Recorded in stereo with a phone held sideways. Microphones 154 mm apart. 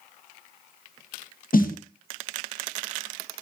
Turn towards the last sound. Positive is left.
turn(degrees=65)  # may be behind; listen again after turning